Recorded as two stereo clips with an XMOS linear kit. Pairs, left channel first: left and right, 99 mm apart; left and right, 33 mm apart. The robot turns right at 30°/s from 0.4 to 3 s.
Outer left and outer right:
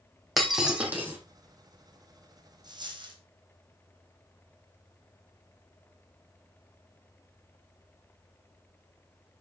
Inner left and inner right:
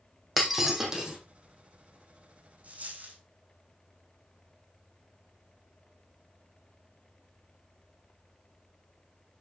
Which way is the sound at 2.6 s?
45° right (ahead or behind).